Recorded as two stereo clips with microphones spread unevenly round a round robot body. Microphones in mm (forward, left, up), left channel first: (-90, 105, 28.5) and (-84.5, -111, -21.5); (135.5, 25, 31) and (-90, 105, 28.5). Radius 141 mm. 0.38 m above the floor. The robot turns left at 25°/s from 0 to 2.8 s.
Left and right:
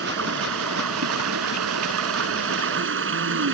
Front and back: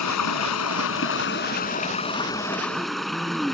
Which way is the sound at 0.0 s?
40° right.